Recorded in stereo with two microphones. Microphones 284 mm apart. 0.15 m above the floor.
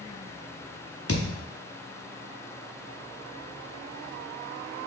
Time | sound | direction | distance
1.1 | a thud | 50° left (ahead or behind) | 1.5 m